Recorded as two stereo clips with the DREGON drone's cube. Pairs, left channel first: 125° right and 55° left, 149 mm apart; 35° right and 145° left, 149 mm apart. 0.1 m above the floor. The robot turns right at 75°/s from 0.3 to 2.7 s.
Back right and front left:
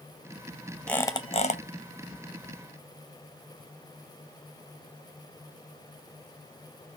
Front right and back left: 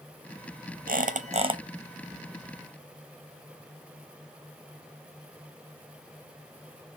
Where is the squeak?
150° left, 0.7 m; by 1.6 s 155° right, 0.7 m.